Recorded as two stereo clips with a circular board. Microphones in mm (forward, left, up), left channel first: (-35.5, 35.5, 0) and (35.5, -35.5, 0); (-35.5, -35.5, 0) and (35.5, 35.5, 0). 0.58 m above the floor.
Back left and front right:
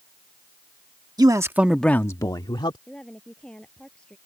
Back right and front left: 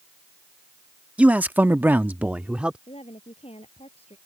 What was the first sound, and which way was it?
A man speaking, 25° right.